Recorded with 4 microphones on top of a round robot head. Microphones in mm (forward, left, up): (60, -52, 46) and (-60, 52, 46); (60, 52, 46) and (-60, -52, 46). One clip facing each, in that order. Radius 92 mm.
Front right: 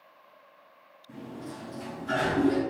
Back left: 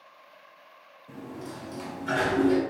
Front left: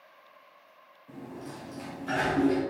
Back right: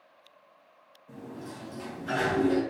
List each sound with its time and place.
1.1 s a sliding door: 120° left, 1.2 m